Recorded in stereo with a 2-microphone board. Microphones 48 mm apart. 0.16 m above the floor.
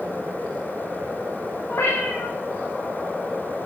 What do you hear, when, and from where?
1.7 s a cat meowing: 70° left (ahead or behind), 3 m